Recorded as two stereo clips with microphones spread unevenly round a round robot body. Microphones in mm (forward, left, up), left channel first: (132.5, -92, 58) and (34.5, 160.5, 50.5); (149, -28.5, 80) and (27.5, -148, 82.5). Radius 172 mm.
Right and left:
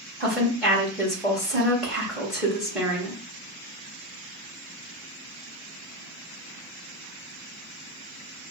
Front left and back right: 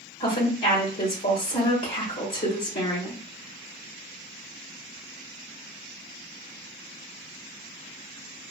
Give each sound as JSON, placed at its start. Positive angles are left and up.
{"t": 0.2, "sound": "a woman speaking", "azimuth_deg": 25, "distance_m": 1.7}